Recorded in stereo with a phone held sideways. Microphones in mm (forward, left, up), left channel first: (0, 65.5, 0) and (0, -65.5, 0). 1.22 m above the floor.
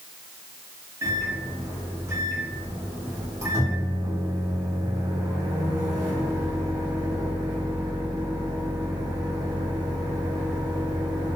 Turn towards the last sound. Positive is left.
turn(degrees=-25)  # may be behind; listen again after turning